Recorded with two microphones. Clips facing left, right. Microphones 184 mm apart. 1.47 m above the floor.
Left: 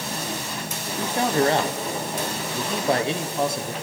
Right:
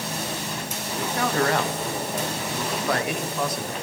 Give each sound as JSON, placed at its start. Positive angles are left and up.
{"t": 0.9, "sound": "a man speaking", "side_deg": 25, "distance_m": 1.0}